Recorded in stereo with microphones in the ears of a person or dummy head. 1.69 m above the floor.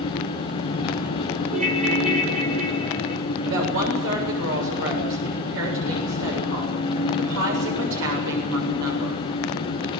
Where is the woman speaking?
70° right (ahead or behind), 7.5 m.